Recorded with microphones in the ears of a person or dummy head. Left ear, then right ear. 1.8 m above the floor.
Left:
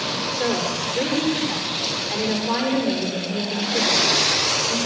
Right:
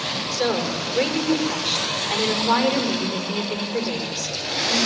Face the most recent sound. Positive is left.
turn(degrees=-40)  # may be behind; listen again after turning